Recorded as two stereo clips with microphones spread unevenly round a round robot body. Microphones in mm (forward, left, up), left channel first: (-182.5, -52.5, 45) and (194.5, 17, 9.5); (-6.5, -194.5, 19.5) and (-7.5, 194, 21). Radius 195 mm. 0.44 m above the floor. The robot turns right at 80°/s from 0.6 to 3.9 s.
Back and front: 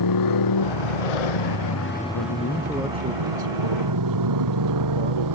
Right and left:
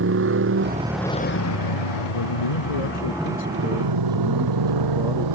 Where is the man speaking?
130° right; by 5.3 s 10° left.